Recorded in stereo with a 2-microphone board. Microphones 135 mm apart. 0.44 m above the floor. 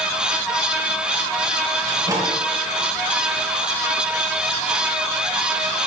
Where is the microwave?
30° right (ahead or behind), 9.5 m.